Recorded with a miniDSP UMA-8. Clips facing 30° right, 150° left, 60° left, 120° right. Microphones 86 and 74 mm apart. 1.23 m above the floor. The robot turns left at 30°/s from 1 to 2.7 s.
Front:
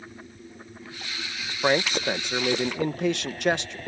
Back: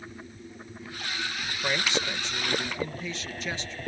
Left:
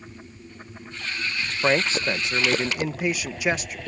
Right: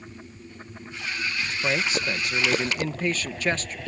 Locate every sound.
1.6 s a man speaking: 15° left; by 3.8 s 20° right